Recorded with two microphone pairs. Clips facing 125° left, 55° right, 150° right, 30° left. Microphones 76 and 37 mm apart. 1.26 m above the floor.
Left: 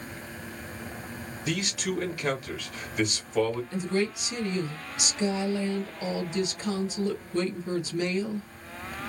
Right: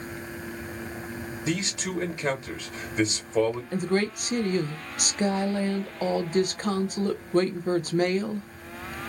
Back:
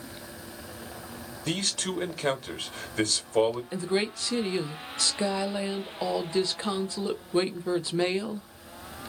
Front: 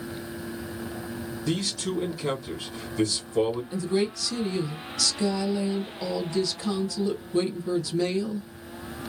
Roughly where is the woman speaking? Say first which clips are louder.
Right 2 dB, front 2 dB; right.